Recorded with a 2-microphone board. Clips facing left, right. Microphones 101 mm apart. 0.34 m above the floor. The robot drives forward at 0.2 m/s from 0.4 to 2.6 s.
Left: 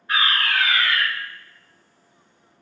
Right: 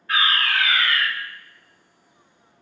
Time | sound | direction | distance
0.1 | a fire alarm | 20° left (ahead or behind) | 1.8 m